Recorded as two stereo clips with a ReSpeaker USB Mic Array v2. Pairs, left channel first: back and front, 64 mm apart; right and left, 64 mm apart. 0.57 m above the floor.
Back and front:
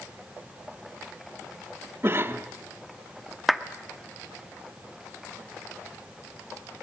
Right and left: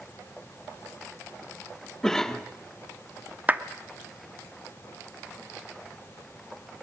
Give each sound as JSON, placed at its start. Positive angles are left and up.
{"t": 2.0, "sound": "a cough", "azimuth_deg": -15, "distance_m": 1.3}
{"t": 3.5, "sound": "a clap", "azimuth_deg": 85, "distance_m": 1.0}